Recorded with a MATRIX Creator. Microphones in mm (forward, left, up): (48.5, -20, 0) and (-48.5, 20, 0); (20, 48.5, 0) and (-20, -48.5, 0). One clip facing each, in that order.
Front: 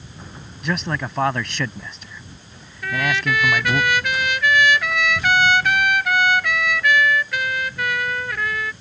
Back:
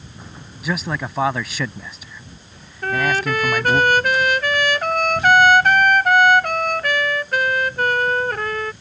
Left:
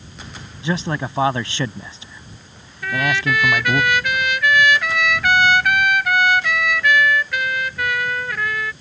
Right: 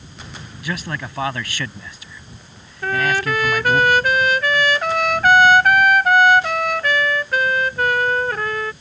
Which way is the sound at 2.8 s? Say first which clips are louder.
Back 3 dB, right 1 dB; 160° right.